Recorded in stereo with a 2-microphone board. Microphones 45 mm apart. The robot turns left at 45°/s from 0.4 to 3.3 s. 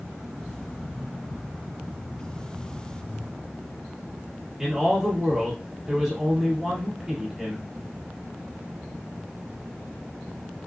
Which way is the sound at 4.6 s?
10° right (ahead or behind).